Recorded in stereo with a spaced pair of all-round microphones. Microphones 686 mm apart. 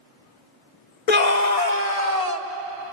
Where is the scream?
75° left (ahead or behind), 0.6 m; by 2.5 s 60° left (ahead or behind), 1.5 m.